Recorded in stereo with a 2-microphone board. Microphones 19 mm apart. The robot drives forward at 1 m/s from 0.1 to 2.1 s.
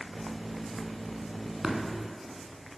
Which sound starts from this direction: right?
Tapping, at 1.6 s.